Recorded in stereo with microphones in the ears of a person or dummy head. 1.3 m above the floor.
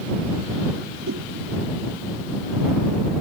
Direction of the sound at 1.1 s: 80° right.